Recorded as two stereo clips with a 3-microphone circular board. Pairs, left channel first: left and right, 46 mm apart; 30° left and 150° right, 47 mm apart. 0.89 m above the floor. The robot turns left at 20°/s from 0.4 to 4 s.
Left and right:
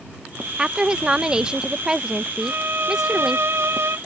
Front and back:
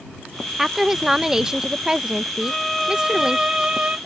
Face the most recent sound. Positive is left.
turn(degrees=-85)